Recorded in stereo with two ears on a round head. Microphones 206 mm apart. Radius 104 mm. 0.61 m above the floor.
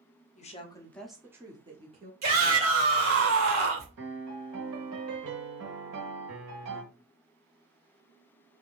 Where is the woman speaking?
35° left (ahead or behind), 1.0 m; by 2.1 s 30° right (ahead or behind), 1.5 m.